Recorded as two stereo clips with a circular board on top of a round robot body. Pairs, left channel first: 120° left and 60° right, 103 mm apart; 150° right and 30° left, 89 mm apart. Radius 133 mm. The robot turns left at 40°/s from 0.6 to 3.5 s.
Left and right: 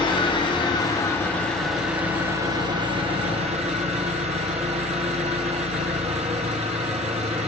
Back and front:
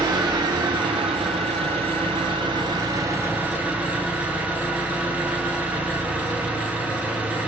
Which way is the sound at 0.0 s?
75° left.